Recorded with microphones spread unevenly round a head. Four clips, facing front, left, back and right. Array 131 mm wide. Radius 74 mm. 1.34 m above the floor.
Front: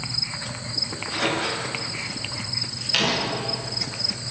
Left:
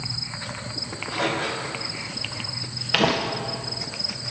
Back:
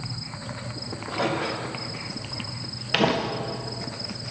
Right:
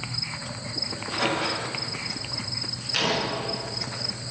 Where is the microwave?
160° left, 4.5 m.